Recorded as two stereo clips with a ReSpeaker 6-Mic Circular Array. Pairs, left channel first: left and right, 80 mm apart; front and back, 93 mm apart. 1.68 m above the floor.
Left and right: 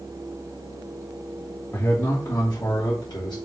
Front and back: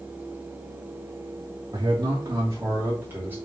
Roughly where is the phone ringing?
No phone ringing in this recording.